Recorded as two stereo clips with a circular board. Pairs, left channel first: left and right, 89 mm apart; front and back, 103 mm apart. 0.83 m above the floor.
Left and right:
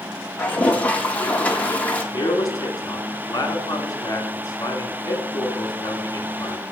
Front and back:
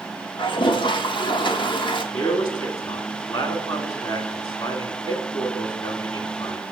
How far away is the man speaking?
About 2 m.